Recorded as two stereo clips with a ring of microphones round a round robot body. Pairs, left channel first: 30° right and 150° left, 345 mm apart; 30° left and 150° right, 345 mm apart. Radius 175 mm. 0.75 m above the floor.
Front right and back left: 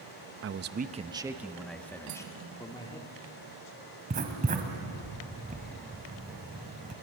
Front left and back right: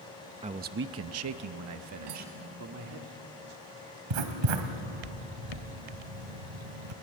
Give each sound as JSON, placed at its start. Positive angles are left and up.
{"t": 0.4, "sound": "a man speaking", "azimuth_deg": 150, "distance_m": 0.7}
{"t": 2.1, "sound": "cutlery clinking", "azimuth_deg": -170, "distance_m": 3.5}
{"t": 4.1, "sound": "writing", "azimuth_deg": -140, "distance_m": 2.0}